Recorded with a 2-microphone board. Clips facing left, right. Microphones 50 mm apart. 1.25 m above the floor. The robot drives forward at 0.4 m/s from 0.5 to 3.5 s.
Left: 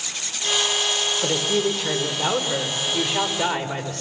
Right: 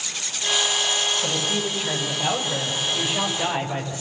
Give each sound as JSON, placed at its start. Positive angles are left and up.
{"t": 1.2, "sound": "a woman speaking", "side_deg": 85, "distance_m": 3.5}